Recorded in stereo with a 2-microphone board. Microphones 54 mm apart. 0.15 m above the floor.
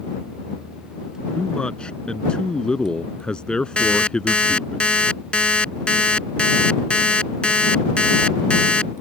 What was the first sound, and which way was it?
A man speaking, 15° left (ahead or behind).